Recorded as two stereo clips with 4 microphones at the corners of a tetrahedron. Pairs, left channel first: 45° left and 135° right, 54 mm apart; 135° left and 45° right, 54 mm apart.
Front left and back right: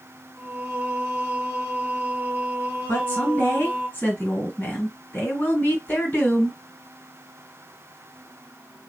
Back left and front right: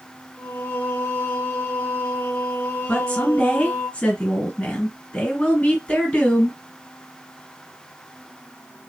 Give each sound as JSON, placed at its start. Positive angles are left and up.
{"t": 0.4, "sound": "singing", "azimuth_deg": 170, "distance_m": 1.3}
{"t": 2.9, "sound": "a woman speaking", "azimuth_deg": 85, "distance_m": 2.0}